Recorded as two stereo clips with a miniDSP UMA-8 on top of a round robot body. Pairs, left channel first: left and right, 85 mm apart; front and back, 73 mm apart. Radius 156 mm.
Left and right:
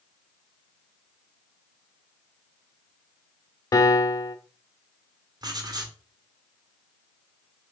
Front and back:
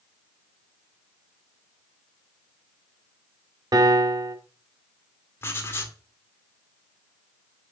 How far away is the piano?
About 0.9 m.